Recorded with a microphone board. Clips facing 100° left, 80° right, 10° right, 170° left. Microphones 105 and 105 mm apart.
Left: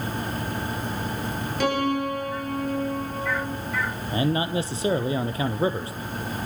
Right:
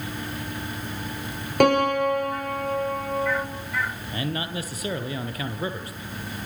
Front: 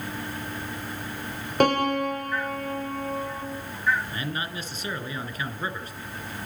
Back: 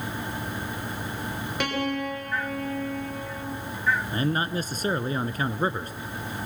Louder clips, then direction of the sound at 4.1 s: Left 8 dB, back 6 dB; 145° left.